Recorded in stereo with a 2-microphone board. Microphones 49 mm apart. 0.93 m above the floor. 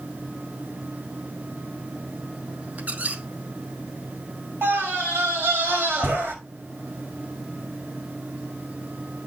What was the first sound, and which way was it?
A squeak, 35° right (ahead or behind).